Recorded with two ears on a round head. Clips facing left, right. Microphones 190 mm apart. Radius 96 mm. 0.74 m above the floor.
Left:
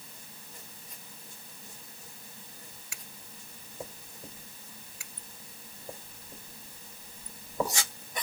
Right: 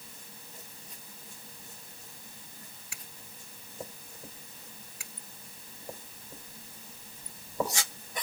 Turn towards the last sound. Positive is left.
No sound to turn to.